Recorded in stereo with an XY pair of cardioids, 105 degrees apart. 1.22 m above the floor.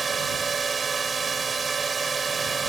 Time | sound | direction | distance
0.0 | a drone | 35° right | ?